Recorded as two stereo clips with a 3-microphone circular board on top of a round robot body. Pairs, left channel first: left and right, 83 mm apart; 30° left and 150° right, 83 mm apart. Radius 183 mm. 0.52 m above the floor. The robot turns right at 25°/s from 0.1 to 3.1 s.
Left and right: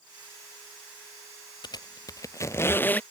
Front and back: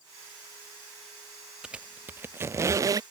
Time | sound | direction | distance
1.6 | a squeak | 130° left | ?